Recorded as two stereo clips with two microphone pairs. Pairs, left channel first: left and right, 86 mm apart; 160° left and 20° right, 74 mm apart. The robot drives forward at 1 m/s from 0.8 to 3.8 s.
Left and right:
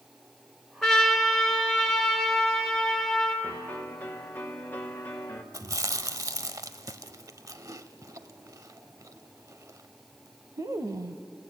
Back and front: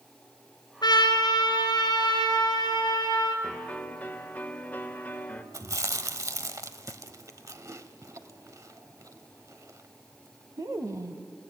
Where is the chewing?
55° right, 1.0 m.